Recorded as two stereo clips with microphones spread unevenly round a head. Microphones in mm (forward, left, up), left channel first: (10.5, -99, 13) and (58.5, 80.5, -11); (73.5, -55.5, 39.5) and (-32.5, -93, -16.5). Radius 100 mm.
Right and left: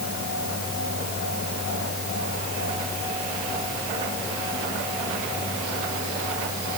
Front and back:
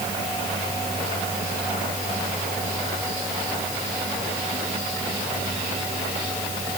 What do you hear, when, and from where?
Only background noise.